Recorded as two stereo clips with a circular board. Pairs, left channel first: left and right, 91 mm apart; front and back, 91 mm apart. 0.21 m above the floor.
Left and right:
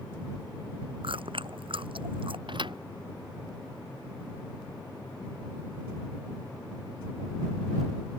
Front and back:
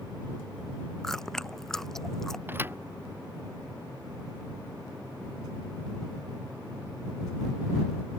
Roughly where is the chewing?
Right.